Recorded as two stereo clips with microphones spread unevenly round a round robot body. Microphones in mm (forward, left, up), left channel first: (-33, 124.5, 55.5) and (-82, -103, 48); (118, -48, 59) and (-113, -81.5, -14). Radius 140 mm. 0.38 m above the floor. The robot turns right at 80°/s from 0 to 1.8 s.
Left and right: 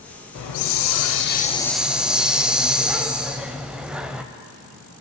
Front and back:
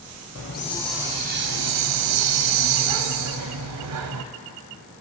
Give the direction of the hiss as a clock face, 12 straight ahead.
10 o'clock.